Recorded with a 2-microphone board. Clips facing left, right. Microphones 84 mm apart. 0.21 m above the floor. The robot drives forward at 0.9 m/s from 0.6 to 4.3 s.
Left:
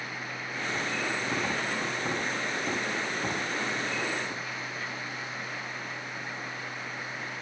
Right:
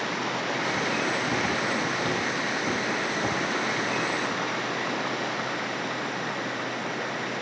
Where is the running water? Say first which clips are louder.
Right 9 dB; 65° right (ahead or behind).